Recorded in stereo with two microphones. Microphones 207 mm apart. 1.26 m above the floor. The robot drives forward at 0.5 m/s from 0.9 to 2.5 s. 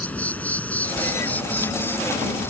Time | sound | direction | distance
0.0 | an insect | 5° left (ahead or behind) | ?